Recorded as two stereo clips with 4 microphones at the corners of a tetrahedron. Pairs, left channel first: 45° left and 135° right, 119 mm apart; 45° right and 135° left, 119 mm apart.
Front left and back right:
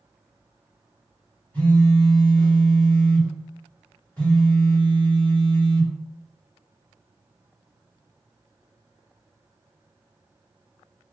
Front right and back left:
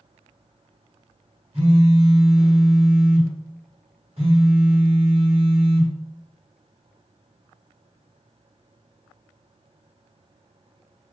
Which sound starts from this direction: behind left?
A phone buzzing, at 1.5 s.